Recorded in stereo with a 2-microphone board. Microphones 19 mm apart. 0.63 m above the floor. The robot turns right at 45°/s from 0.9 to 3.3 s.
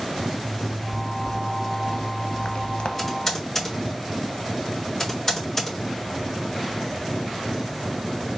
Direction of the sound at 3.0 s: 10° left (ahead or behind).